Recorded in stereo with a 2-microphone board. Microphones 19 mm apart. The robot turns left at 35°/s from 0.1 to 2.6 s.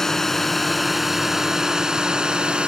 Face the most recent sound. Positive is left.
turn(degrees=-60)